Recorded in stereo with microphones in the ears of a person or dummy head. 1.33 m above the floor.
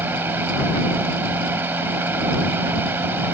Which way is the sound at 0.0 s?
10° right (ahead or behind).